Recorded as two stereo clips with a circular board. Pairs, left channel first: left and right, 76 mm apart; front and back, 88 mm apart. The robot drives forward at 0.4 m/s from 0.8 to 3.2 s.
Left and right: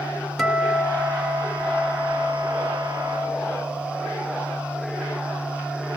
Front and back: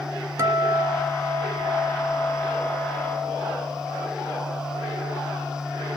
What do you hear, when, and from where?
0.4 s a guitar: straight behind, 0.9 m